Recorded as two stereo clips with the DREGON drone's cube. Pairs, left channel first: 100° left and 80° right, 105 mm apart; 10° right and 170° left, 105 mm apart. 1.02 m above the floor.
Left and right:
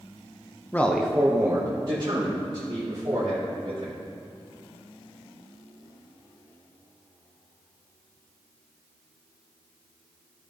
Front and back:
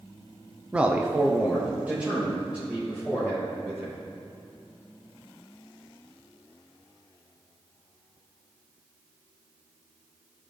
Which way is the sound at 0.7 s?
110° left.